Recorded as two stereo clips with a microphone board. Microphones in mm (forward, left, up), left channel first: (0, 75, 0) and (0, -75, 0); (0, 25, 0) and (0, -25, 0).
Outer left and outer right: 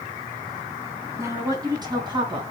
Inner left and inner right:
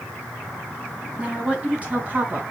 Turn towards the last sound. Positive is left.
turn(degrees=-35)  # may be behind; listen again after turning